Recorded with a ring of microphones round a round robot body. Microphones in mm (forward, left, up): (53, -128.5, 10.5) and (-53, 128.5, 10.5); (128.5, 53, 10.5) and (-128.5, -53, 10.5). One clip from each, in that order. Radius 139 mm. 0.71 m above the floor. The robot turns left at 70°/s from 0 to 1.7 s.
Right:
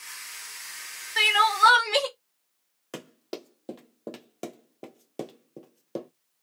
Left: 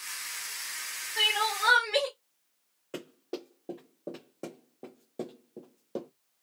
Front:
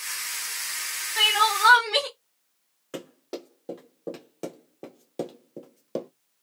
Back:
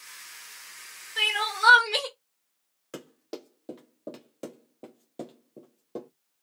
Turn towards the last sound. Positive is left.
turn(degrees=0)